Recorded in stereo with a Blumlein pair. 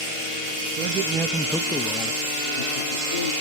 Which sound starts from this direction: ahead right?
A man speaking, at 0.8 s.